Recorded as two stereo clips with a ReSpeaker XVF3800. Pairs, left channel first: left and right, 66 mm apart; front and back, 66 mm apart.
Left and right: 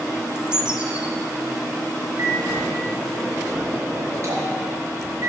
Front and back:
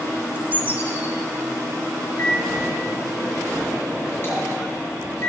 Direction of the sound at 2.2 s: 50° right.